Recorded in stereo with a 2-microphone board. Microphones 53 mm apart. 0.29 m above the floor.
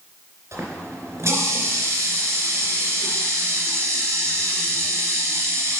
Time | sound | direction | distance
0.5 | a running tap | 60° right (ahead or behind) | 3 m